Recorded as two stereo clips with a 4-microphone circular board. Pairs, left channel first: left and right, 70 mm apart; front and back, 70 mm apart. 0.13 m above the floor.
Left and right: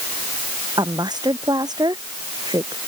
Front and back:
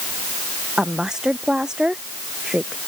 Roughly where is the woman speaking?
Right.